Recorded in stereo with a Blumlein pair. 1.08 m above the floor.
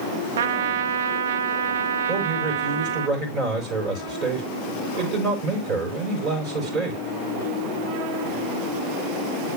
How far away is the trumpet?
About 0.9 m.